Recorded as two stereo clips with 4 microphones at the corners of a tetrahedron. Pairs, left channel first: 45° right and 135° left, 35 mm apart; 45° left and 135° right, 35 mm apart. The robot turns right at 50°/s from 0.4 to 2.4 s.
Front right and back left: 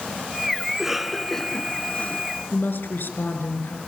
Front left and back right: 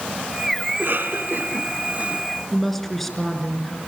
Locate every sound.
0.7 s a cough: 155° right, 2.5 m; by 2.2 s 80° right, 2.5 m
2.5 s a woman speaking: 35° right, 4.5 m